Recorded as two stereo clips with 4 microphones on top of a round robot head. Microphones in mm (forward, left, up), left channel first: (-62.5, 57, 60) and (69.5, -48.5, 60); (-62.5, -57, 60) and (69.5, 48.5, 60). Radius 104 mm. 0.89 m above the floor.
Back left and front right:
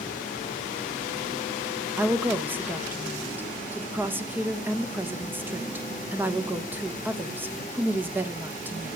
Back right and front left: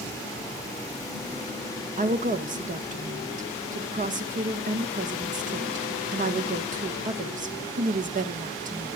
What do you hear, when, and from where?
2.0 s a woman speaking: 35° left, 1.2 m